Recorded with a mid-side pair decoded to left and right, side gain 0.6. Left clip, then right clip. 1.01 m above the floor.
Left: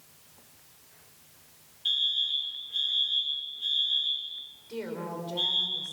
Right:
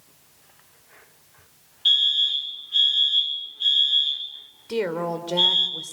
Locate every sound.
1.9 s a fire alarm: 45° right, 5 m
4.7 s a woman speaking: 60° right, 4.5 m